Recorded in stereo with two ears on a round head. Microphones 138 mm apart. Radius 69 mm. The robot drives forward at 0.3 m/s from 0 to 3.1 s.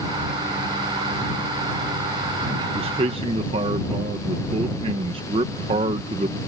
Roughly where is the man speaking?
Right.